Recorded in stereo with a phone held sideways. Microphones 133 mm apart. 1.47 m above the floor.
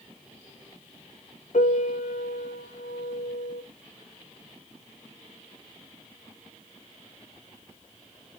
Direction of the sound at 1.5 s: 70° left (ahead or behind).